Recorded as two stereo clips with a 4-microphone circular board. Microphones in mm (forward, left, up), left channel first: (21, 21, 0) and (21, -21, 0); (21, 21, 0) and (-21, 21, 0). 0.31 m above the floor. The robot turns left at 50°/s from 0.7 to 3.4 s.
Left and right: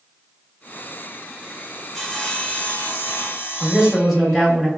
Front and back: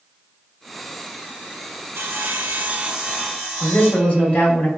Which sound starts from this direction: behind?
Sawing, at 1.9 s.